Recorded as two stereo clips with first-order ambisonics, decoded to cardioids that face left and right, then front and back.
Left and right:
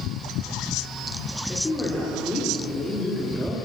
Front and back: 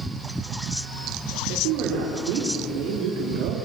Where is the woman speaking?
170° left, 3.5 m; by 3.6 s straight behind, 2.5 m.